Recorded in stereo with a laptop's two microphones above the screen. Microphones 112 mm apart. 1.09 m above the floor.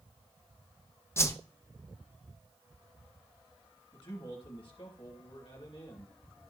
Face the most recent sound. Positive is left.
turn(degrees=45)  # may be behind; listen again after turning